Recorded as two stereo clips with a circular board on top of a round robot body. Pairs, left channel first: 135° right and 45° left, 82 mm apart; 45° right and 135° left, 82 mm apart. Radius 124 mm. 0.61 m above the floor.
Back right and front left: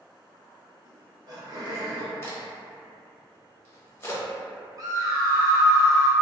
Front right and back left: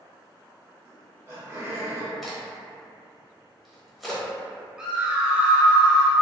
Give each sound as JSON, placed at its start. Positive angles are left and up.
{"t": 0.8, "sound": "laughter", "azimuth_deg": 75, "distance_m": 1.2}
{"t": 2.2, "sound": "a crack", "azimuth_deg": -135, "distance_m": 1.1}
{"t": 4.8, "sound": "a scream", "azimuth_deg": 60, "distance_m": 1.0}